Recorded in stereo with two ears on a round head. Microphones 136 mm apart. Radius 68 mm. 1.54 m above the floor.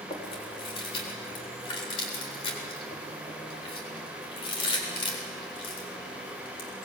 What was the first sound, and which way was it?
Chewing, 35° left (ahead or behind).